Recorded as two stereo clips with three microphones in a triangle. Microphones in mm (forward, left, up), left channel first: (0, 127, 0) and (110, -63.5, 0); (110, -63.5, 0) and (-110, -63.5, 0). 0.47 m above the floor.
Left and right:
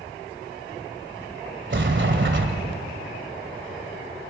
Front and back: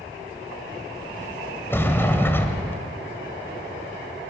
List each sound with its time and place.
1.7 s a sliding door: 80° right, 2.5 m